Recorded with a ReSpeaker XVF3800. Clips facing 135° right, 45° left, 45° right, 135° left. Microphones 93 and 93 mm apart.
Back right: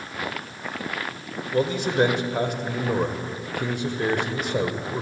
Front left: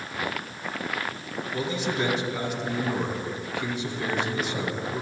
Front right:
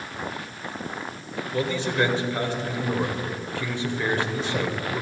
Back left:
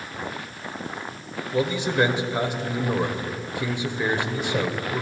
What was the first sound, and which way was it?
A man speaking, 155° right.